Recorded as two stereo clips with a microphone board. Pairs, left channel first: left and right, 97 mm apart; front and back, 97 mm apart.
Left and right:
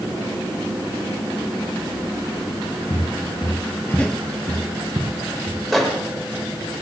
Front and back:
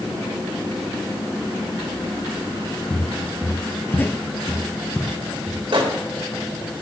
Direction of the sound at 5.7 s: Straight behind.